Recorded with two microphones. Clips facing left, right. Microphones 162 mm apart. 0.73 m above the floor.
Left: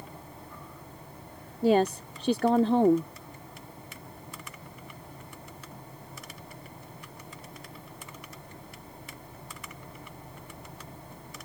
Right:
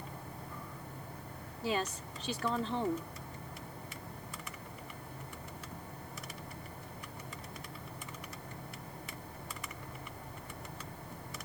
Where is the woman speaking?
55° left (ahead or behind).